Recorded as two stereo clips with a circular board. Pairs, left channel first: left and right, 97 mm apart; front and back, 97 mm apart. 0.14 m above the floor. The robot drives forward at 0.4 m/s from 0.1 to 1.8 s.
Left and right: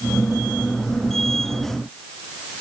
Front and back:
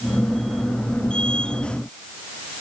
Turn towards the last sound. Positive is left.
No sound to turn to.